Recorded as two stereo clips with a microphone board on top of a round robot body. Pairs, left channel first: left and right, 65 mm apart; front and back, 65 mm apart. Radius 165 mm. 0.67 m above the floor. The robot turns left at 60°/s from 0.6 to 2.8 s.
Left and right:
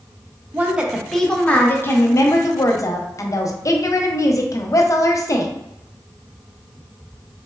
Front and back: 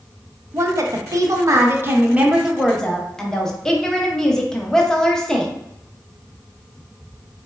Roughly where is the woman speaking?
Behind right.